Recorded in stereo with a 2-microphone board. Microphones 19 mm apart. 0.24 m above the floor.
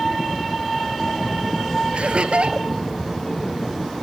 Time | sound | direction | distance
1.9 | laughter | 75° right (ahead or behind) | ?